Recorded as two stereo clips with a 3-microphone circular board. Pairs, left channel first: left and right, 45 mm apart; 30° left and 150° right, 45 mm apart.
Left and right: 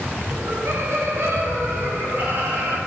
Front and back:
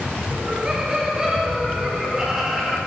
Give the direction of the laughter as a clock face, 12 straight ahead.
3 o'clock.